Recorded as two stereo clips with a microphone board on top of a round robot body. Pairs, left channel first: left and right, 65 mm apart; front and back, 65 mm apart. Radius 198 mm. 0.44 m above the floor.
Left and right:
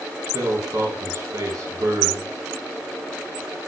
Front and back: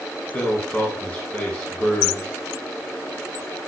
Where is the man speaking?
65° right, 2.5 m.